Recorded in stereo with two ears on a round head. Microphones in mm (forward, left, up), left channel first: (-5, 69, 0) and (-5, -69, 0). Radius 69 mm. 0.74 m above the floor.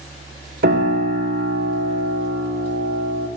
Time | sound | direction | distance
0.6 | a piano | 70° right (ahead or behind) | 1.5 m